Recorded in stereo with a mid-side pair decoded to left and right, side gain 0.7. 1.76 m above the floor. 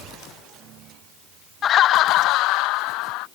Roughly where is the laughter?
Ahead left.